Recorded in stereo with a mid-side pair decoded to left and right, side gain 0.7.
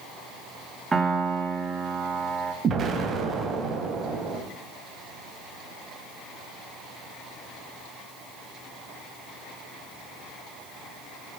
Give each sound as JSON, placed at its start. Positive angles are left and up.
{"t": 0.9, "sound": "a piano", "azimuth_deg": -20, "distance_m": 2.0}
{"t": 2.6, "sound": "an explosion", "azimuth_deg": -35, "distance_m": 2.5}